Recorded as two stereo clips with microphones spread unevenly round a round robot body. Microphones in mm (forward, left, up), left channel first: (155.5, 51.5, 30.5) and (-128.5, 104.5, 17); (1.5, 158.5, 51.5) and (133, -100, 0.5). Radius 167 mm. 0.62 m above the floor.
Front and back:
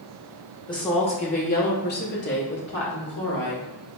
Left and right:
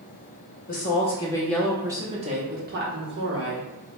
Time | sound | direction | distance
0.7 | a woman speaking | 60° left | 1.0 m